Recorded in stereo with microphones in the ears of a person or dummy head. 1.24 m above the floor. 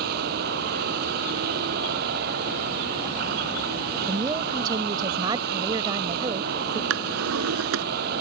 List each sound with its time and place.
0.0 s a vehicle: 55° right (ahead or behind)
4.1 s a woman speaking: 20° right (ahead or behind)
6.9 s a drawer: 80° right